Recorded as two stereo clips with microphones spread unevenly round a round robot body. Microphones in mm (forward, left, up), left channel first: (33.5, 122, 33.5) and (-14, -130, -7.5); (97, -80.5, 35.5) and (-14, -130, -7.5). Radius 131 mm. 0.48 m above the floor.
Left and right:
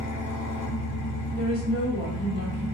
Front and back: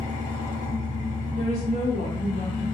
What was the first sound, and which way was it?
An engine running, 120° left.